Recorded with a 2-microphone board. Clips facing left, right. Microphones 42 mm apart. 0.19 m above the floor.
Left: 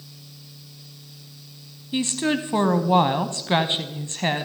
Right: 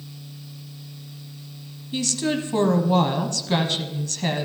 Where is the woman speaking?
25° left (ahead or behind), 1.0 m.